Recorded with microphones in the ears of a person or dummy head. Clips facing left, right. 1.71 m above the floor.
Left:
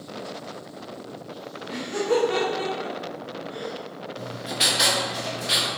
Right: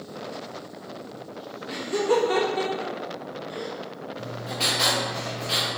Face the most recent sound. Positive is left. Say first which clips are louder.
# left 1 dB
turn(degrees=20)  # may be behind; listen again after turning